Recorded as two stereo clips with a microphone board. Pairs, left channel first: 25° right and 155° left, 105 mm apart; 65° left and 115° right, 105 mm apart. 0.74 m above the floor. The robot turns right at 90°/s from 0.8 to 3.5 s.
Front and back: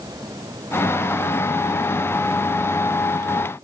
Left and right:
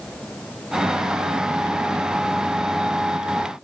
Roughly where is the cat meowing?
I don't hear a cat meowing.